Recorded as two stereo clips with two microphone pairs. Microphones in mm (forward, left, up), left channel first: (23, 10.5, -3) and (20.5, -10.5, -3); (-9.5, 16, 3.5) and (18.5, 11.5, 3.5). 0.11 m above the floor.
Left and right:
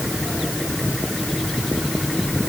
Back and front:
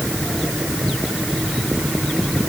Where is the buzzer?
I don't hear a buzzer.